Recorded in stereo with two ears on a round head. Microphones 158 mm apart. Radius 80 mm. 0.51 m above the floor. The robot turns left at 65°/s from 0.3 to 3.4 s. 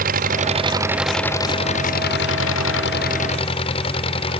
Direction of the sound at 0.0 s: 130° right.